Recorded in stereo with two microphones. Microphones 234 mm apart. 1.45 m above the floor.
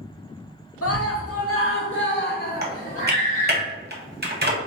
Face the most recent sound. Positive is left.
turn(degrees=-45)  # may be behind; listen again after turning